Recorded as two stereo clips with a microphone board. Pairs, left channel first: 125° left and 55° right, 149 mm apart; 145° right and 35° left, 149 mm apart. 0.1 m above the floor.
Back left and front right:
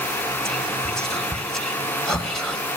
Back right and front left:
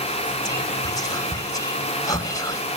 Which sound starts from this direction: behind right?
Whispering, at 0.5 s.